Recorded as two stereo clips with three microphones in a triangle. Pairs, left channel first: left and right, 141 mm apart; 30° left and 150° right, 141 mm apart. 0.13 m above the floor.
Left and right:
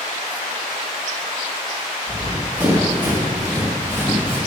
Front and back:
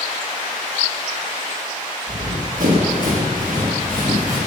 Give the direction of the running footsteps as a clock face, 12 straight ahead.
6 o'clock.